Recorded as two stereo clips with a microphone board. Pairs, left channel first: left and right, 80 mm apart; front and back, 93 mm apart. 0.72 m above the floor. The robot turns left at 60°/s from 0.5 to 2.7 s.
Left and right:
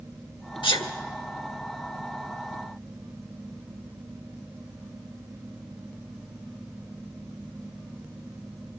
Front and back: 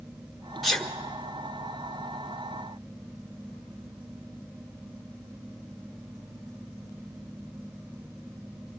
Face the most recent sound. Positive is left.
turn(degrees=-35)